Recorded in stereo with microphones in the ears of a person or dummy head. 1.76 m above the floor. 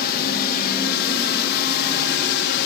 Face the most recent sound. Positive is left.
turn(degrees=55)  # may be behind; listen again after turning